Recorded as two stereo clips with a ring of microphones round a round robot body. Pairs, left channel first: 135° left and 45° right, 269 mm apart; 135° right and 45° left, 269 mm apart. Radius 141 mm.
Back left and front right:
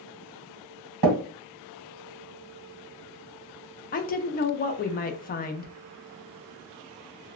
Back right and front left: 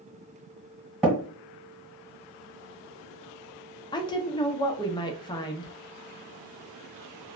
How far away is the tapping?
About 1.2 m.